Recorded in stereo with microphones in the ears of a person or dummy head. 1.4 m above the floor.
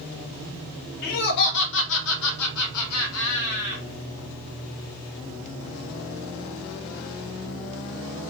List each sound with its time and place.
1.0 s laughter: 50° left (ahead or behind), 1.7 m